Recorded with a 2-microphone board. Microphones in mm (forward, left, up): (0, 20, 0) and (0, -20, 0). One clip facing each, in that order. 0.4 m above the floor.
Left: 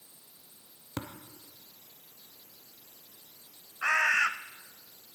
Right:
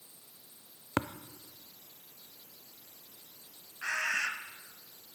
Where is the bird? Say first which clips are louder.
Left 7 dB; 65° left (ahead or behind), 0.7 m.